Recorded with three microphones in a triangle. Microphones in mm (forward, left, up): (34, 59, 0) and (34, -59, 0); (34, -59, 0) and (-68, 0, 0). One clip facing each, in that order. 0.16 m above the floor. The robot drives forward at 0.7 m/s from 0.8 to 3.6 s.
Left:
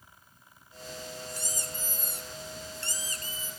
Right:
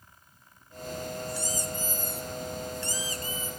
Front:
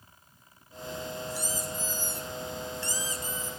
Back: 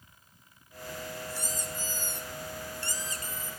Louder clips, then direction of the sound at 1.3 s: Right 6 dB, front 3 dB; 45° left.